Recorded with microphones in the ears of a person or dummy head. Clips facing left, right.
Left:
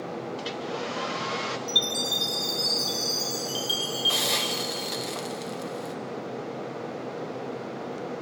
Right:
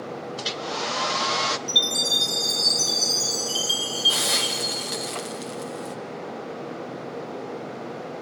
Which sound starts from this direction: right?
A hair dryer, at 0.4 s.